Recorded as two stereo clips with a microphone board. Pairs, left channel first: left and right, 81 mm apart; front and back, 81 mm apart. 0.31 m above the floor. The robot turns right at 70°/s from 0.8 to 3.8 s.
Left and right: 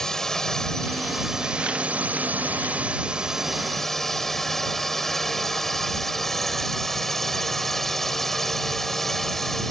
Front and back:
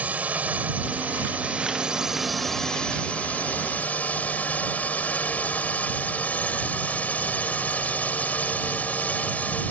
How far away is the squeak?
I don't hear a squeak.